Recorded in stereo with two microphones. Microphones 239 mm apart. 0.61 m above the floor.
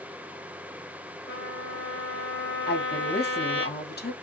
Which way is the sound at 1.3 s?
50° left (ahead or behind).